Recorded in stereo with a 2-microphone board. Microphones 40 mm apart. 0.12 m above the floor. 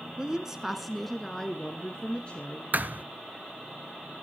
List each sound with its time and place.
0.2 s a woman speaking: 25° right (ahead or behind), 1.5 m; by 2.6 s 35° left (ahead or behind), 2.5 m
2.7 s a thud: 50° right (ahead or behind), 0.7 m